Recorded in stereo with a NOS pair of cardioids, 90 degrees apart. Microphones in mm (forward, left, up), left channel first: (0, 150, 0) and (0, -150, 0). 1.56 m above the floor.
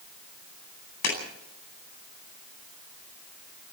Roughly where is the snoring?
No snoring in this recording.